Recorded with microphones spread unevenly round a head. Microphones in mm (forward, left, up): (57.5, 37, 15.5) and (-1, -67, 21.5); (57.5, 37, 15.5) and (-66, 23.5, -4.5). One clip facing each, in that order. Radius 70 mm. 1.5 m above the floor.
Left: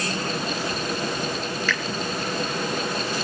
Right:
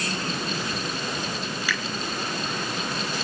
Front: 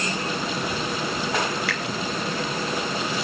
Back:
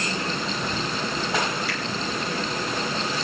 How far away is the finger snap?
About 6 m.